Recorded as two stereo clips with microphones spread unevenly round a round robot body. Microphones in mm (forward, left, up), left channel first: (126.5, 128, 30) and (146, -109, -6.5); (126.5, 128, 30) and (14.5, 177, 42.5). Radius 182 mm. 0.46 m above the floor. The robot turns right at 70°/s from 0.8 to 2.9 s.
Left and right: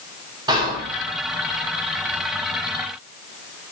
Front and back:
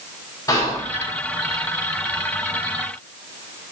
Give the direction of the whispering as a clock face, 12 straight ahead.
1 o'clock.